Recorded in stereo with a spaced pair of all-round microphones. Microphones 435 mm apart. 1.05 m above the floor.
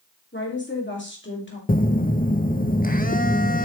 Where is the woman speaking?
25° left (ahead or behind), 2 m.